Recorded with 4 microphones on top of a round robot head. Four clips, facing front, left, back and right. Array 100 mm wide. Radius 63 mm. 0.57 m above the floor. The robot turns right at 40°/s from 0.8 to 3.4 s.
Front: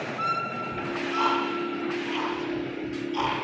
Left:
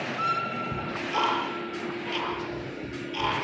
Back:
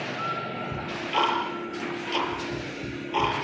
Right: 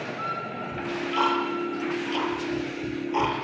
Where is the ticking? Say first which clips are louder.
Right 6 dB, back 2 dB; 130° left, 6.5 m; by 3.4 s 125° right, 6.5 m.